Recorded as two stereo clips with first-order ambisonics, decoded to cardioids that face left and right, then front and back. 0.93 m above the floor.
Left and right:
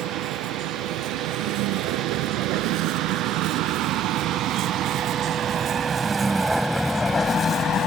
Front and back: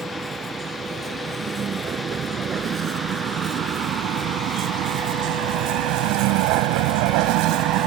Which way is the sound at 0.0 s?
110° right.